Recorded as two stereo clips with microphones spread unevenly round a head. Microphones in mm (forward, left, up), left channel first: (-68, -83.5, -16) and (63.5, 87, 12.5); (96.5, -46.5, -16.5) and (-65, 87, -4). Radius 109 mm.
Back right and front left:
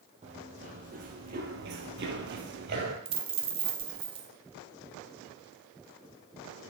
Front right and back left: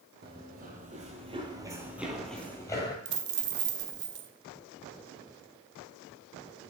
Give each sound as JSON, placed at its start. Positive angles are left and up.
{"t": 0.2, "sound": "running footsteps", "azimuth_deg": 105, "distance_m": 2.0}
{"t": 3.0, "sound": "a dropped coin", "azimuth_deg": 115, "distance_m": 0.8}